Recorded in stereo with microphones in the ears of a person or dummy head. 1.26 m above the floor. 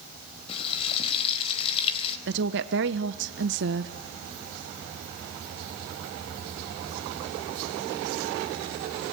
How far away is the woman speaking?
About 0.9 m.